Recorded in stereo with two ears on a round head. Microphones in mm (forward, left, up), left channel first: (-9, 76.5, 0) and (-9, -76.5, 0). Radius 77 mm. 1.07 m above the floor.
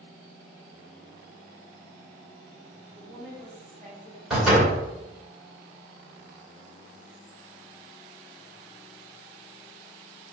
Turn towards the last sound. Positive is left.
turn(degrees=-5)  # may be behind; listen again after turning